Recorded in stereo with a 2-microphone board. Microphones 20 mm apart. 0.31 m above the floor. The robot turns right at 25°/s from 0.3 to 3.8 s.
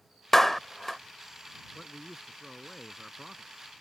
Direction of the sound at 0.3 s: 10° left (ahead or behind).